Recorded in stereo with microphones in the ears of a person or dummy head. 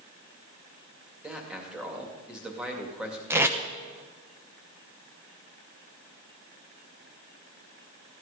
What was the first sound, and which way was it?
A man speaking, 10° right (ahead or behind).